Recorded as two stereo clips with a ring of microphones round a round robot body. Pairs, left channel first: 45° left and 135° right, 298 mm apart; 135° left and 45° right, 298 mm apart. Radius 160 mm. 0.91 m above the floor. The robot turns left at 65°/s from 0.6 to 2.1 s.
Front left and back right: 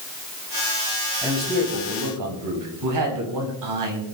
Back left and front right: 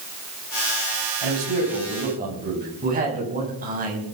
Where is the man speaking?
50° right, 5.5 m; by 4.0 s 110° right, 5.5 m.